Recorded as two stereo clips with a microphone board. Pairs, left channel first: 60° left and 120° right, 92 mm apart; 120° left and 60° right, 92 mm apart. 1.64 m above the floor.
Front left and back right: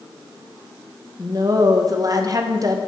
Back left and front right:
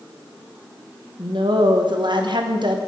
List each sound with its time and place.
1.2 s a woman speaking: 80° right, 1.1 m